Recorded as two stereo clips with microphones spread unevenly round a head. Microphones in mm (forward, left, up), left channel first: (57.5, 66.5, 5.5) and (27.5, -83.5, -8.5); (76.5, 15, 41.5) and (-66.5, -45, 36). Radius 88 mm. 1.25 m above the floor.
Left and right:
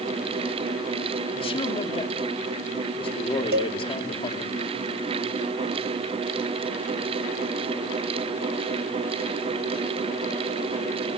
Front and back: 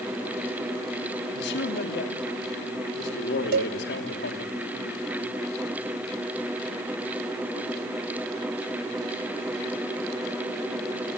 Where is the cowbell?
135° right, 0.8 m.